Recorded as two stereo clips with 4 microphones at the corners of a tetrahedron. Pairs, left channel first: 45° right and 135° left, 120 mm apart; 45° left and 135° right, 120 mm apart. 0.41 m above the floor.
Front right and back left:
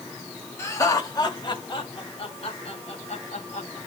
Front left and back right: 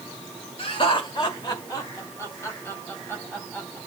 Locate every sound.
0.6 s laughter: 15° left, 2.0 m; by 3.8 s 35° right, 3.5 m